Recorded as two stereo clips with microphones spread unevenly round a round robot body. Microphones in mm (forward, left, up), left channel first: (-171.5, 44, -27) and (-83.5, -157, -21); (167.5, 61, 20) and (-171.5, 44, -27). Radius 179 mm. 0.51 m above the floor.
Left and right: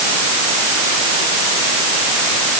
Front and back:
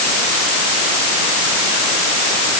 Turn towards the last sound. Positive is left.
No sound to turn to.